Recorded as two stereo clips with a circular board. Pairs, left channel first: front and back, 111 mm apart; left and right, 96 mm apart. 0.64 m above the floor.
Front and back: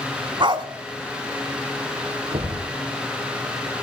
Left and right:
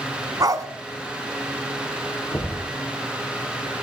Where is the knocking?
150° left, 7 m.